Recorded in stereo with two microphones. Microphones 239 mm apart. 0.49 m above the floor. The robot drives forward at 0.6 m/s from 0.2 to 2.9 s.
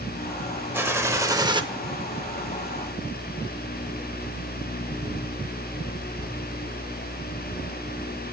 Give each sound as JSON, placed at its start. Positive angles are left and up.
{"t": 0.7, "sound": "a gunshot", "side_deg": -10, "distance_m": 1.0}